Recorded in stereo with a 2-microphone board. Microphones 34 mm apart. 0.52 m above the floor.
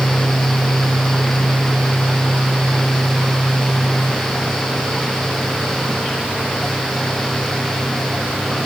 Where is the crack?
I don't hear a crack.